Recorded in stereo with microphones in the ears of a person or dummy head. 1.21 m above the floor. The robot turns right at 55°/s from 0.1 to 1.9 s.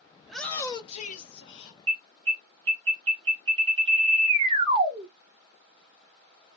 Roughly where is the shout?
Ahead.